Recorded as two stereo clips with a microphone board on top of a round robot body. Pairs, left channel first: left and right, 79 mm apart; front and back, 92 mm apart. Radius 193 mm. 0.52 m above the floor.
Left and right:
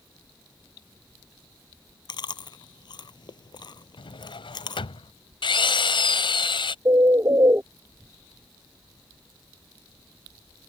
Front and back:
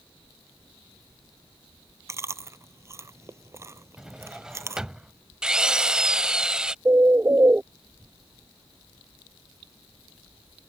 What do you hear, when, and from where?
2.1 s chewing: 120° left
4.0 s a drawer: 95° left
5.4 s a drill: 100° left
6.8 s a bird: 125° right